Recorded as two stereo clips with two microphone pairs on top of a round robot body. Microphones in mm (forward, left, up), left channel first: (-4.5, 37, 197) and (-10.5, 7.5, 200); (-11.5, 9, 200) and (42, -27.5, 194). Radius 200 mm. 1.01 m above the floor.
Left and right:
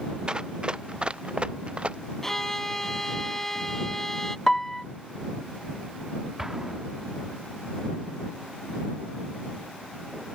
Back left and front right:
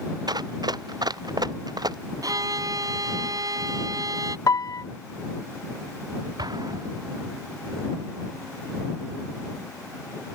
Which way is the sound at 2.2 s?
5° right.